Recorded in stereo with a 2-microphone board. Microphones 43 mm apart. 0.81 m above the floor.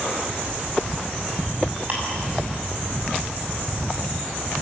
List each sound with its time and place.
1.9 s ticking: 40° right (ahead or behind), 7 m